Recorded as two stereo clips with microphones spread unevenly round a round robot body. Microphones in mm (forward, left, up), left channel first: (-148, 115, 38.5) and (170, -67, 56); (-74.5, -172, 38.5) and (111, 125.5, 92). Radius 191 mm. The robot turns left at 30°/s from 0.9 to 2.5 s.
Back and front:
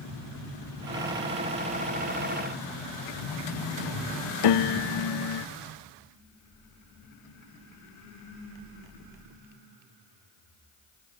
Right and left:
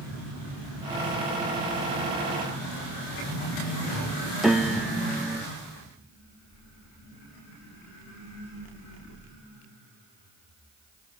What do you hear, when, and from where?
4.4 s a piano: 150° left